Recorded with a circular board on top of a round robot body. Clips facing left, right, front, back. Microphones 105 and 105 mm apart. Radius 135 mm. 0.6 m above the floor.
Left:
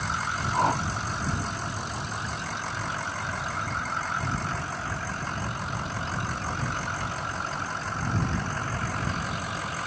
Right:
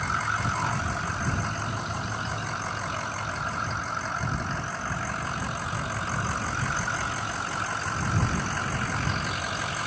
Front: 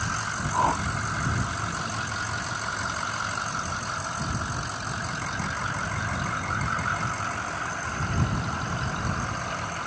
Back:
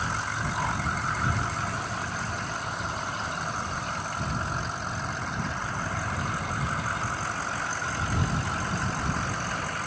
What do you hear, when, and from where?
0.5 s a whoosh: 50° left